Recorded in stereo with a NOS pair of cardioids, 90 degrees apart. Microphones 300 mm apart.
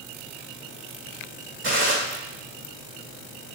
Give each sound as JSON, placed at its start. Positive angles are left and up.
{"t": 1.6, "sound": "a gunshot", "azimuth_deg": -40, "distance_m": 2.0}